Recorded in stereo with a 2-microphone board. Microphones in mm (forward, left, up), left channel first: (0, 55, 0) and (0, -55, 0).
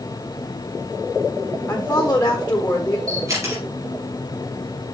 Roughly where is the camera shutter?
Right.